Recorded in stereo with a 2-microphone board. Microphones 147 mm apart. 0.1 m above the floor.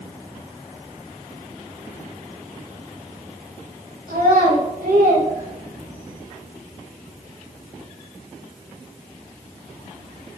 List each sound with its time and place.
4.1 s a child speaking: 80° right, 4.5 m